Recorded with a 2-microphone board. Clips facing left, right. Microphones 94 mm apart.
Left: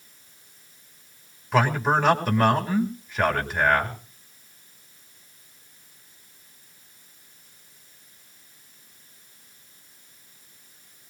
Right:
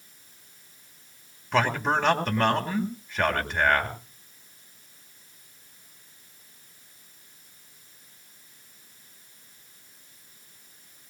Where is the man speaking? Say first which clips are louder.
Left 3 dB; 5° left (ahead or behind), 1.9 m.